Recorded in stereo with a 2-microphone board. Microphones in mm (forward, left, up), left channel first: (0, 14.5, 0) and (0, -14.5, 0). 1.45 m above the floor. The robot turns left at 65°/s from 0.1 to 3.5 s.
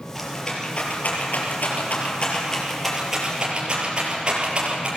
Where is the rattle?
Centre (ahead or behind), 4.5 m; by 4.9 s 35° right (ahead or behind), 4.5 m.